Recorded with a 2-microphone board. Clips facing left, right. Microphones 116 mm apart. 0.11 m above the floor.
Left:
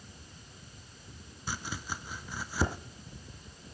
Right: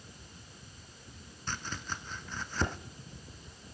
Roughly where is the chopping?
Centre.